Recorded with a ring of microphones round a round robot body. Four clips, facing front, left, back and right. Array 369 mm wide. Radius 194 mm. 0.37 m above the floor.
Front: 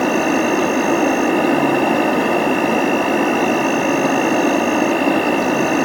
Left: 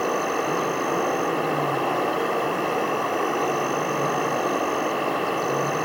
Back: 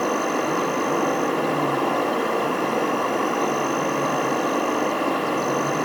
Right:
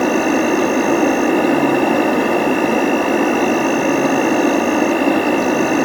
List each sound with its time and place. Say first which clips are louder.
0.0 s an insect: right 9 dB, front 6 dB; 45° right, 1.6 m